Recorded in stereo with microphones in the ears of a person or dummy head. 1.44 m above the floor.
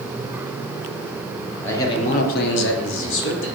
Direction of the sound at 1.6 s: 10° left (ahead or behind).